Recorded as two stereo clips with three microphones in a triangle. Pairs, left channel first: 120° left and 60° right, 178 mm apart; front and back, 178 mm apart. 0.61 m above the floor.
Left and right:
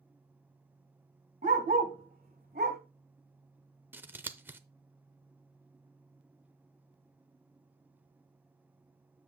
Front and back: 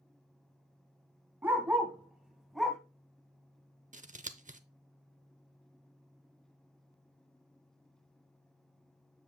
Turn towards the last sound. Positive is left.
turn(degrees=-140)